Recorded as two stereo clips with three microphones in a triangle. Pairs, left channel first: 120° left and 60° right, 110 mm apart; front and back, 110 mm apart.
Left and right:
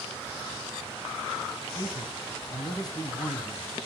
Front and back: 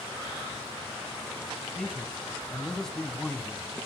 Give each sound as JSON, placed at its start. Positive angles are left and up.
{"t": 1.8, "sound": "a man speaking", "azimuth_deg": 85, "distance_m": 1.5}